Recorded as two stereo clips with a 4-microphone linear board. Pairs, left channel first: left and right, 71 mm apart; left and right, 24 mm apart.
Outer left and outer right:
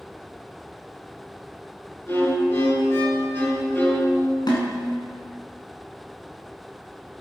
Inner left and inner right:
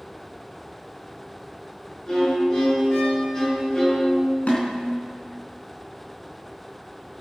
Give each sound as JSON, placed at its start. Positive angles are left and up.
{"t": 2.1, "sound": "a violin", "side_deg": 35, "distance_m": 6.5}
{"t": 4.5, "sound": "a snare drum", "side_deg": 65, "distance_m": 3.5}